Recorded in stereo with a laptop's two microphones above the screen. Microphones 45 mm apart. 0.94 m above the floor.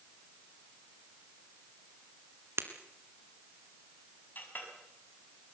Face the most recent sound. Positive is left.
turn(degrees=45)  # may be behind; listen again after turning